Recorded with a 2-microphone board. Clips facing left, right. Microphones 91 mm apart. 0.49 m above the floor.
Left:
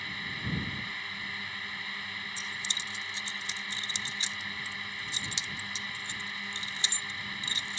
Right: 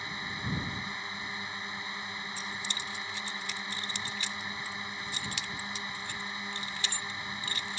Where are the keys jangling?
25° left (ahead or behind).